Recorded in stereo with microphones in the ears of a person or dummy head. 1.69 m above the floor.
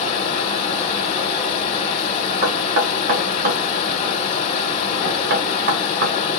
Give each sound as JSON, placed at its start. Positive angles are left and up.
{"t": 0.0, "sound": "a fan", "side_deg": 40, "distance_m": 1.7}
{"t": 2.4, "sound": "knocking", "side_deg": -55, "distance_m": 1.8}